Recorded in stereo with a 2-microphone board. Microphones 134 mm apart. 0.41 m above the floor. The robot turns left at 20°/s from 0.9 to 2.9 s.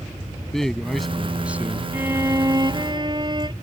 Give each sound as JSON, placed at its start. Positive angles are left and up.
{"t": 0.5, "sound": "a man speaking", "side_deg": 0}
{"t": 1.9, "sound": "a violin", "side_deg": -15}